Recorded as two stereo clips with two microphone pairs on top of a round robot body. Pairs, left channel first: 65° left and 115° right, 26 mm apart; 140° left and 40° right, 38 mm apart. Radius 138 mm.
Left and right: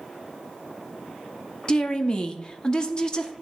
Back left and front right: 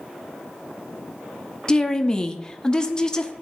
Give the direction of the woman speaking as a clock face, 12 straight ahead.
8 o'clock.